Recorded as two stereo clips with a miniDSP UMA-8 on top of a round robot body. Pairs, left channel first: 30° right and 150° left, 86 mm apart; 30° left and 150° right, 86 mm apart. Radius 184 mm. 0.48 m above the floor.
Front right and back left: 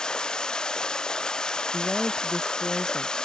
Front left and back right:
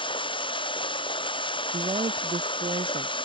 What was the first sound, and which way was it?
Running water, 50° left.